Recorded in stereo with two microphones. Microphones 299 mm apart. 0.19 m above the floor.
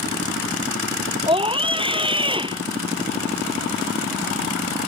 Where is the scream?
15° right (ahead or behind).